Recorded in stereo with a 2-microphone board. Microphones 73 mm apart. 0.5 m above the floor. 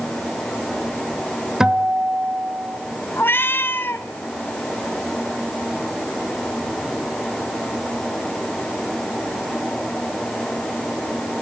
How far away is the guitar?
About 1.4 m.